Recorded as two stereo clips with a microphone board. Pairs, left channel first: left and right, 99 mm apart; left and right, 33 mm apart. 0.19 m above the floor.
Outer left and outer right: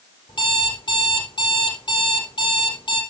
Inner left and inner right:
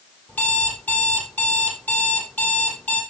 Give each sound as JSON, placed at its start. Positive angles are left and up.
{"t": 0.3, "sound": "an alarm clock", "side_deg": 55, "distance_m": 4.5}